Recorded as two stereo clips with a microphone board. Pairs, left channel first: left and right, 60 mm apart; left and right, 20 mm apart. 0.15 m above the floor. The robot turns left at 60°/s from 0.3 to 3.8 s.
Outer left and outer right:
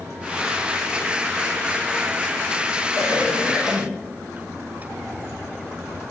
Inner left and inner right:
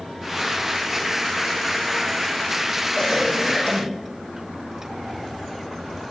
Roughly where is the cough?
Behind left.